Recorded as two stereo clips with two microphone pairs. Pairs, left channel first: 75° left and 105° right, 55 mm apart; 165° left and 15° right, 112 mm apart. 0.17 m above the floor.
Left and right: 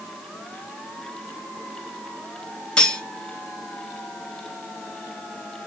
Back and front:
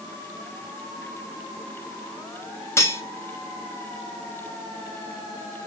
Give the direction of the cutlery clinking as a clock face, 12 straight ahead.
8 o'clock.